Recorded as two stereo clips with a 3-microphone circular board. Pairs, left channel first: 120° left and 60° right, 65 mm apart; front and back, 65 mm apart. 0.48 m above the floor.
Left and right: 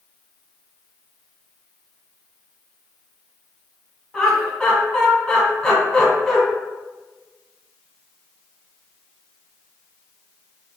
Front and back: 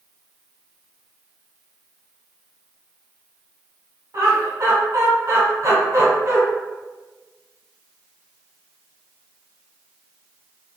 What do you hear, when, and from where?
4.1 s laughter: 155° right, 1.6 m